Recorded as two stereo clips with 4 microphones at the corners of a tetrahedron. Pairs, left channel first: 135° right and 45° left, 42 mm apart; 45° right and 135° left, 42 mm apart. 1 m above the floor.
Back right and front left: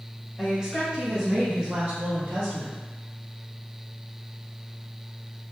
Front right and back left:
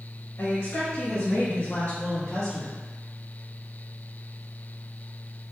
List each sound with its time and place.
0.4 s a woman speaking: 30° right, 1.3 m; by 2.8 s 40° left, 0.9 m